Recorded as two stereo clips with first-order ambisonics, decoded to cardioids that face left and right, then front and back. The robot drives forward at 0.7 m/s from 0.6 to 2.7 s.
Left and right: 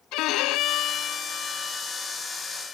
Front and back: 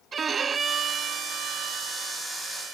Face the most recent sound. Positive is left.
turn(degrees=165)